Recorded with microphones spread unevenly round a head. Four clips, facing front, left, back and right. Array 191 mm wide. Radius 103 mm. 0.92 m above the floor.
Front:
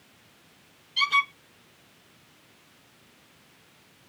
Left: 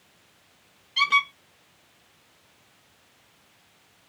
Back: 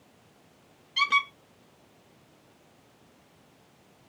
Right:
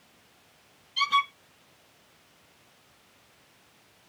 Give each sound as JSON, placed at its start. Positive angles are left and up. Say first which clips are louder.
{"t": 1.0, "sound": "a squeak", "louder": "left 1 dB, front 1 dB", "azimuth_deg": 140, "distance_m": 1.0}